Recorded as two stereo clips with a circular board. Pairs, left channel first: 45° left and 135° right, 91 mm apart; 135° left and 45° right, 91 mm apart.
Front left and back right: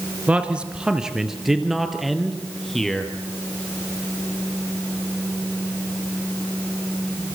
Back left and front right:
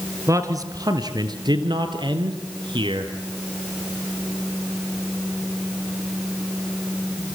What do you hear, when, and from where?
0.3 s a man speaking: 70° right, 1.9 m; by 3.1 s 40° right, 3.5 m